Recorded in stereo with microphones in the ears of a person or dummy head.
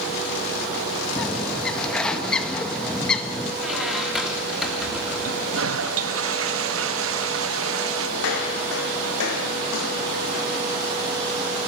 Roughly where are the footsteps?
Left.